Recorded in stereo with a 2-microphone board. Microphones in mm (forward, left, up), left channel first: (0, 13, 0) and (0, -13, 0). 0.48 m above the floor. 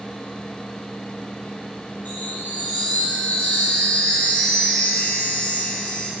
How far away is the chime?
About 5 m.